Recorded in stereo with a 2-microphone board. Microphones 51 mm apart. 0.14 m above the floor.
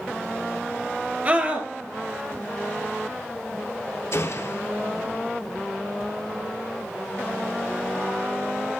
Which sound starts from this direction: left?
A gunshot, at 4.1 s.